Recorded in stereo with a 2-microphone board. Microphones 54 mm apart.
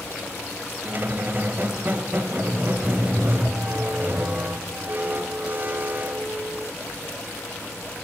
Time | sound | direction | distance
0.8 | a squeak | 40° right (ahead or behind) | 0.8 m